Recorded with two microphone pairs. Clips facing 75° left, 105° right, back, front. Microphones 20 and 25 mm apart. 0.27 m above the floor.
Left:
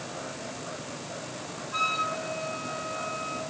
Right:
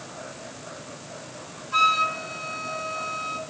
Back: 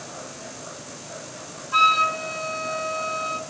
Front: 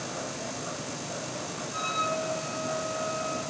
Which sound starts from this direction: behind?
A flute, at 1.7 s.